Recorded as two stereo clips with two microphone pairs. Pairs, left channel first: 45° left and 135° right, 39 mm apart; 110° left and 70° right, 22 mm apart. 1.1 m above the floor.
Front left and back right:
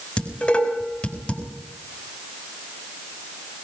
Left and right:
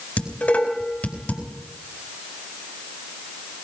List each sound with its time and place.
0.2 s dishes clattering: 105° left, 4.5 m